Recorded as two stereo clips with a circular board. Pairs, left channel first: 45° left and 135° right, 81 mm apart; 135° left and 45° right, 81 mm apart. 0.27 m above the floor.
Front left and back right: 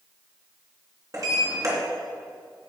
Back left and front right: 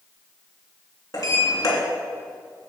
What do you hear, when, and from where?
1.1 s a sliding door: straight behind, 3 m